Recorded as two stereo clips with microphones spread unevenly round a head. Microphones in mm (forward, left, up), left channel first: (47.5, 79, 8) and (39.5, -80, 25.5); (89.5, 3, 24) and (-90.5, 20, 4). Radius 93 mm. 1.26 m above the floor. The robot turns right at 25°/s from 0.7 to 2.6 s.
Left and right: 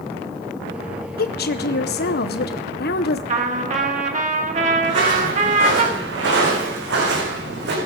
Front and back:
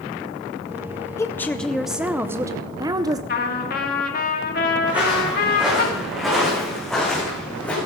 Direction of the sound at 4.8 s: 100° right.